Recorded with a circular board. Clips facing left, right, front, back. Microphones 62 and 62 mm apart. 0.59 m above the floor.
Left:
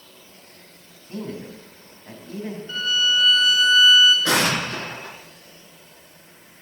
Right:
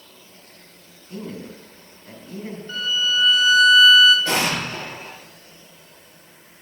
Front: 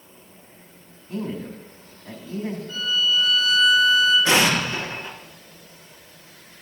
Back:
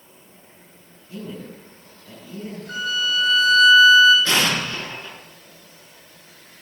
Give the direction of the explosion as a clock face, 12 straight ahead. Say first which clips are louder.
Left 2 dB, front 2 dB; 10 o'clock.